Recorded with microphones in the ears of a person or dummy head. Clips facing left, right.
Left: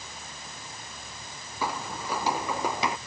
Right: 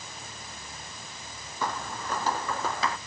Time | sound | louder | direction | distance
1.6 | footsteps | left 1 dB | centre (ahead or behind) | ?